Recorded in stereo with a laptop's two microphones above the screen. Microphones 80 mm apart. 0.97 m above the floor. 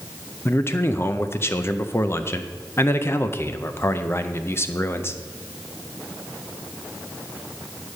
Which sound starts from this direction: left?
A man speaking, at 0.5 s.